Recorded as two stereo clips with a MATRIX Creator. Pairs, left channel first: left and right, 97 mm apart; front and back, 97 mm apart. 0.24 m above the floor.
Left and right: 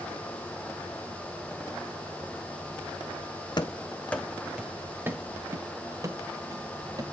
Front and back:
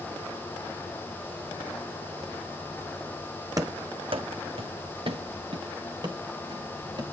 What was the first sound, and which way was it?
Running footsteps, 125° left.